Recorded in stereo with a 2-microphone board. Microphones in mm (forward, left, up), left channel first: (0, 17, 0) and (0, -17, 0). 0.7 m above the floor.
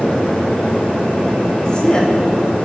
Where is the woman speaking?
30° left (ahead or behind), 5.5 m.